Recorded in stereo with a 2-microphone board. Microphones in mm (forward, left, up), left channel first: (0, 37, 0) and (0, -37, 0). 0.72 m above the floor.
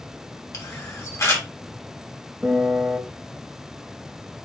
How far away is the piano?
About 0.8 m.